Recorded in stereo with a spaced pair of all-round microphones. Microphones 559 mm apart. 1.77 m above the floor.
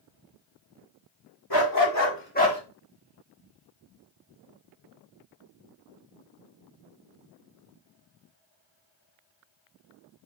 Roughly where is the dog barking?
Left.